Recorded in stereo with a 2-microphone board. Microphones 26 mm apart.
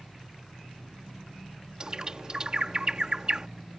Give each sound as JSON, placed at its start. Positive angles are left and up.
{"t": 1.8, "sound": "a bird", "side_deg": -30}